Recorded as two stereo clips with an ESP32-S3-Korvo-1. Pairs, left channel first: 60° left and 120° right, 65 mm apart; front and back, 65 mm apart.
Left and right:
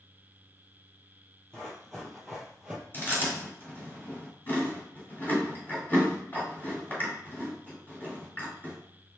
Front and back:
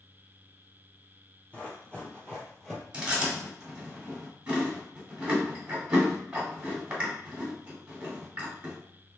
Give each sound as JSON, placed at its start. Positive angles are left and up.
{"t": 1.5, "sound": "running footsteps", "azimuth_deg": 15, "distance_m": 1.5}
{"t": 2.9, "sound": "chewing", "azimuth_deg": 110, "distance_m": 1.8}